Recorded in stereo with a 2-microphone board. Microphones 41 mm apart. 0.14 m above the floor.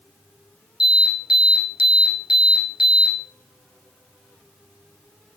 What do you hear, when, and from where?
0.8 s an alarm: 15° right (ahead or behind), 1.8 m